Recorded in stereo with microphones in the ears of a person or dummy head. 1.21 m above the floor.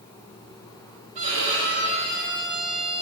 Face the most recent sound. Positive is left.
turn(degrees=-40)  # may be behind; listen again after turning